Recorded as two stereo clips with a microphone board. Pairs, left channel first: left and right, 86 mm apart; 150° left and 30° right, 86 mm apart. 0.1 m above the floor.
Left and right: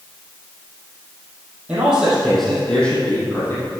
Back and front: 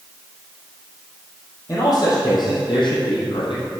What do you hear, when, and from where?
1.7 s a man speaking: 165° right, 3.5 m; by 3.6 s 150° left, 4 m